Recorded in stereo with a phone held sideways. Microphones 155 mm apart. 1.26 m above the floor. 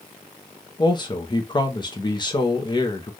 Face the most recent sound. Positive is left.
turn(degrees=30)  # may be behind; listen again after turning